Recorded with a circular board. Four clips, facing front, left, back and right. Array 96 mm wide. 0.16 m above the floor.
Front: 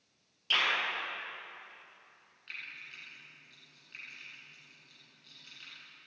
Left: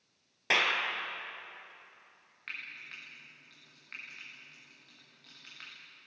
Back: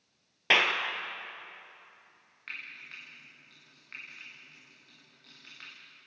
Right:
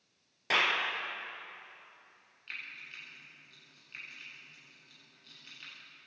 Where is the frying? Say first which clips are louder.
Left 1 dB, back 3 dB; 125° left, 8.5 m.